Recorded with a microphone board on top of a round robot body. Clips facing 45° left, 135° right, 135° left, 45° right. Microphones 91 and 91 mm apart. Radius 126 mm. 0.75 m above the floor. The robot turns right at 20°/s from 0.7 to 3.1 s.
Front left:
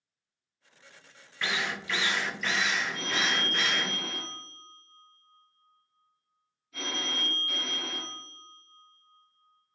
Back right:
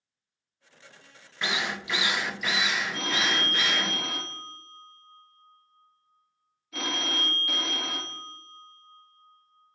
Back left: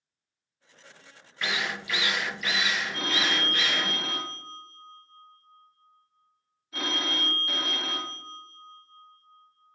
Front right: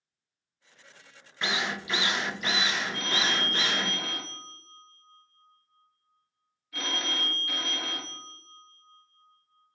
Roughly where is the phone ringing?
Behind.